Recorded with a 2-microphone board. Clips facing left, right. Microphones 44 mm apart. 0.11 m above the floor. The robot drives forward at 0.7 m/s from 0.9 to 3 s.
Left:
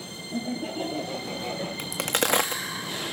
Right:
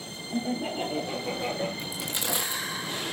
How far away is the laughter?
About 2.5 m.